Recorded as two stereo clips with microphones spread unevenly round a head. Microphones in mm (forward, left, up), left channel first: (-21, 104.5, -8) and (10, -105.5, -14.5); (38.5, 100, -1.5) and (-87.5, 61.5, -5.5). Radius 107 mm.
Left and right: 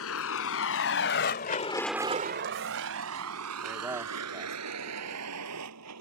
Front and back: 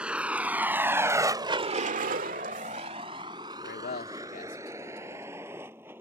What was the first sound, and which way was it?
A vehicle, 115° left.